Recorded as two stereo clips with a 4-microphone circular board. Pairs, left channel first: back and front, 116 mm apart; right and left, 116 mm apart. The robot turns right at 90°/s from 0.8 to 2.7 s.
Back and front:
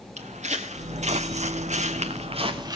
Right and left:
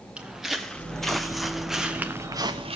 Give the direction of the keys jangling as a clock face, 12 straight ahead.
No keys jangling in this recording.